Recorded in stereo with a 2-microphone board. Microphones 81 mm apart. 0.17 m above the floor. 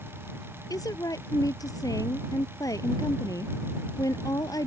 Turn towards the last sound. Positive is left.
turn(degrees=45)  # may be behind; listen again after turning